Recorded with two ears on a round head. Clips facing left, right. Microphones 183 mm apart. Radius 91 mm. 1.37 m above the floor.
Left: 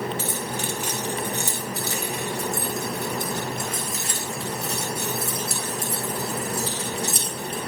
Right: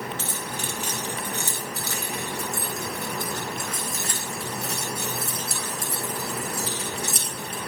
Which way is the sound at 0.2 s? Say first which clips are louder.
Left 4 dB; 10° left (ahead or behind).